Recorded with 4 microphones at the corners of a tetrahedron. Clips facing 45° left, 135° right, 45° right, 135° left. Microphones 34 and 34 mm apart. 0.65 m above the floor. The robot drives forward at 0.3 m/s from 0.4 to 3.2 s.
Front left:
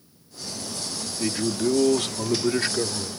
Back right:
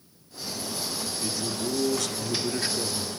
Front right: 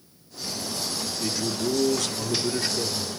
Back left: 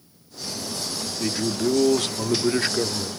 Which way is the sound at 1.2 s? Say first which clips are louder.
Front left 9 dB, back left 4 dB; 80° left.